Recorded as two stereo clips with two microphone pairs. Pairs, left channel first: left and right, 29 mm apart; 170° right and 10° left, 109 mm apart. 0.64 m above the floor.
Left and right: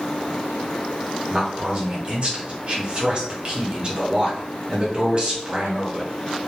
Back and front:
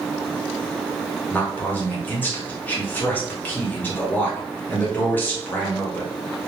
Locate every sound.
1.3 s a man speaking: 105° right, 0.9 m